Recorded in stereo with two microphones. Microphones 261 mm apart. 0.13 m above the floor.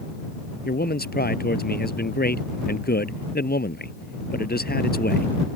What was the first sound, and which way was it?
A man speaking, 35° left (ahead or behind).